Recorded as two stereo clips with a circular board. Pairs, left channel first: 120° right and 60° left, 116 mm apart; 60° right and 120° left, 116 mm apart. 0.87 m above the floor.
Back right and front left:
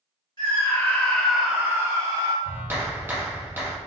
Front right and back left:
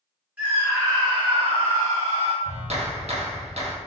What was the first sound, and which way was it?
A scream, 165° right.